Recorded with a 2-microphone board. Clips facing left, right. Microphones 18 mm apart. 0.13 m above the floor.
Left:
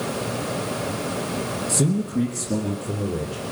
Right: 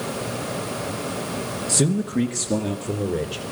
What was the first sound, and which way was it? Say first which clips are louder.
A man speaking: right 2 dB; 35° right (ahead or behind).